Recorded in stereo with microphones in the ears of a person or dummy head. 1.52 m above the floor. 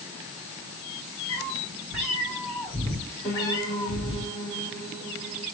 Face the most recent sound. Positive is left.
turn(degrees=10)  # may be behind; listen again after turning